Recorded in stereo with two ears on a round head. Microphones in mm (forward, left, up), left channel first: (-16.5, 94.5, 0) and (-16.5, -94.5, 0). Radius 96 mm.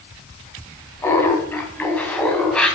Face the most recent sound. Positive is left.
turn(degrees=5)  # may be behind; listen again after turning